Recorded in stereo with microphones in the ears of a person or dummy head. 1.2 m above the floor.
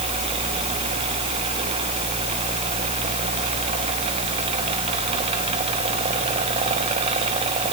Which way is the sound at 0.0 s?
35° right (ahead or behind).